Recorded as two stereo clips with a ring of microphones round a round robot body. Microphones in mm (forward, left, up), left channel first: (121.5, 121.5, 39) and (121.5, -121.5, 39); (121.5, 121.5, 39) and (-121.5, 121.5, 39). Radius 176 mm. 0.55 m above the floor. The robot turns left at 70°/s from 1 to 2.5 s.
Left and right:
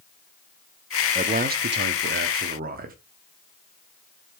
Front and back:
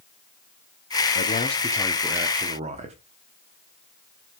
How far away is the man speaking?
About 0.8 m.